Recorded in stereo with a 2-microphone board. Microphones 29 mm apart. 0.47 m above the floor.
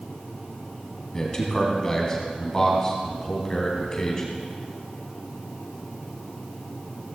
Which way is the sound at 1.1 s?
20° left (ahead or behind).